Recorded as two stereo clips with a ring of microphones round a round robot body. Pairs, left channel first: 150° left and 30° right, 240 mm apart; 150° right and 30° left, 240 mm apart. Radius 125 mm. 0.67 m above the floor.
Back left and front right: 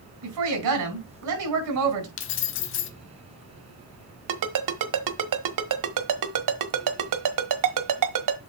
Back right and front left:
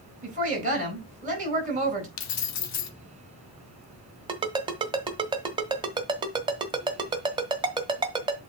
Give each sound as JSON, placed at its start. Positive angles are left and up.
{"t": 0.2, "sound": "a woman speaking", "azimuth_deg": -30, "distance_m": 4.5}
{"t": 2.2, "sound": "keys jangling", "azimuth_deg": -170, "distance_m": 1.0}
{"t": 4.3, "sound": "a ringtone", "azimuth_deg": -40, "distance_m": 1.3}